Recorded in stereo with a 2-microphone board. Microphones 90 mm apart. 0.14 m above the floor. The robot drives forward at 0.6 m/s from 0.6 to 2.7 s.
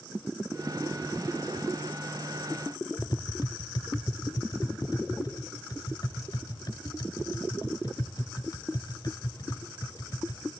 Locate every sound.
3.0 s tapping: 50° left (ahead or behind), 1.4 m